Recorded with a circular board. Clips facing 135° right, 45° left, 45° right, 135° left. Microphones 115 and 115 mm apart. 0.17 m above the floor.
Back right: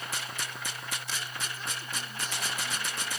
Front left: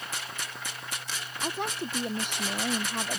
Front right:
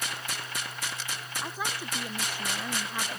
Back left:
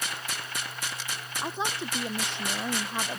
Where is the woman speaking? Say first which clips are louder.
Front left 7 dB, back left 4 dB; 70° left.